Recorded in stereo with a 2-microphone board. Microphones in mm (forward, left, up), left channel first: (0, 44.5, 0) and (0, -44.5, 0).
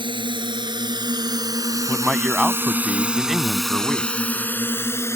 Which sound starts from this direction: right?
A drone, at 0.0 s.